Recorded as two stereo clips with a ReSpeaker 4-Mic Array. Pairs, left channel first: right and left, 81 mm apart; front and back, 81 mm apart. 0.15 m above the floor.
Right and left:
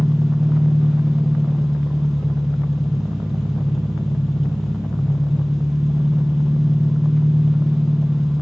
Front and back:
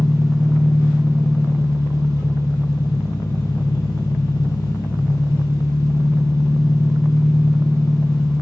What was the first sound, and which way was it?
An engine running, straight ahead.